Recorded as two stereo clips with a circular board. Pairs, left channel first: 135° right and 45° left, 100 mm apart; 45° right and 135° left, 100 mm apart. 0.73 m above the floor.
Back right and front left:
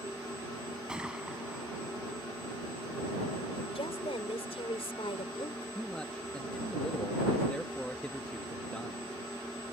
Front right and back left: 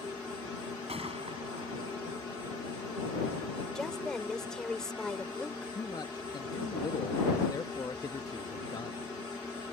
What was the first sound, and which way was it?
A gunshot, 125° left.